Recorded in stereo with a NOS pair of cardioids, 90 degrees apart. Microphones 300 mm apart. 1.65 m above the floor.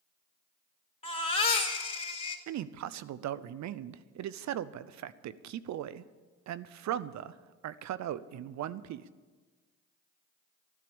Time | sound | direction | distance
1.0 | a baby crying | 25° left | 3.5 m
2.5 | a man speaking | 65° right | 0.7 m